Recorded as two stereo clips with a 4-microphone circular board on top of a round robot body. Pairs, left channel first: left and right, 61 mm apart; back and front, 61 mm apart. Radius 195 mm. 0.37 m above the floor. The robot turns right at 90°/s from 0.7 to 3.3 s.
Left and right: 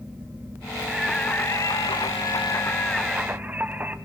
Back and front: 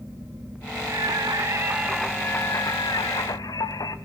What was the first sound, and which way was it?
Singing, 15° right.